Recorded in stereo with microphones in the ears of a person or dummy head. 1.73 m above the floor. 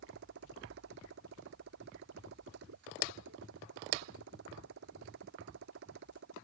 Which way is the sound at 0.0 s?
55° right (ahead or behind).